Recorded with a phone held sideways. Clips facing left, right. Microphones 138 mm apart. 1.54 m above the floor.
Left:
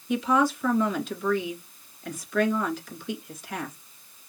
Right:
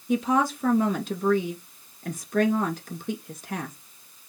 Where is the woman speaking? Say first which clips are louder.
Even; 50° right (ahead or behind), 1.8 m.